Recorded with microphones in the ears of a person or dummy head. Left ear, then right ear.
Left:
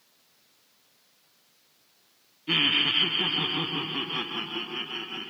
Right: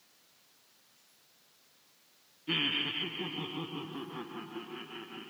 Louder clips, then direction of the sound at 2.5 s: Left 9 dB; 20° left (ahead or behind).